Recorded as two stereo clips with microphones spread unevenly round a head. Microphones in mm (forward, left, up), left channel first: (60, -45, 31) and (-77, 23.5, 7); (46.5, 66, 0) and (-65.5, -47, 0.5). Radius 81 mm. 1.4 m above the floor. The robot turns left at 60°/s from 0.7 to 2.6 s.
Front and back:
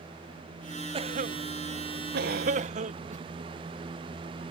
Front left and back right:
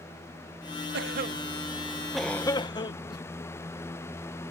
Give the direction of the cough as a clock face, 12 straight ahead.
5 o'clock.